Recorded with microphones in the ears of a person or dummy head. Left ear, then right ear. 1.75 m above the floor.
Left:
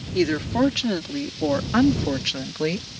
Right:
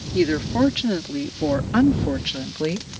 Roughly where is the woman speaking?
Centre.